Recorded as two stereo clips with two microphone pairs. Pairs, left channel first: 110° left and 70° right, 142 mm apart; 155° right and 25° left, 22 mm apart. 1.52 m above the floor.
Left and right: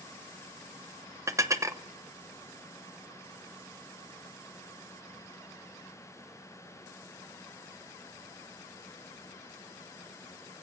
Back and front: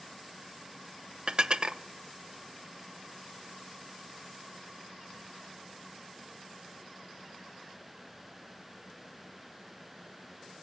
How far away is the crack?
No crack in this recording.